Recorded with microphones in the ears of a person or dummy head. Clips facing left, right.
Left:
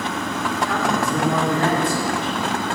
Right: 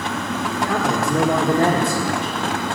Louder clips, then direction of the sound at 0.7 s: Right 2 dB; 35° right (ahead or behind).